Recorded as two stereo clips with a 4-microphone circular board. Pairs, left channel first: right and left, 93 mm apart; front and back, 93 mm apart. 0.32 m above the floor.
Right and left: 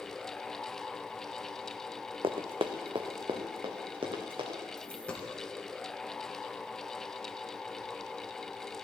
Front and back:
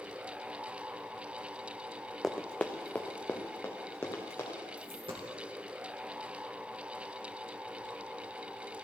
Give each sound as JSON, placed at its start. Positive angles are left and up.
{"t": 2.2, "sound": "running footsteps", "azimuth_deg": 85, "distance_m": 0.9}
{"t": 4.8, "sound": "a dropped coin", "azimuth_deg": -165, "distance_m": 2.5}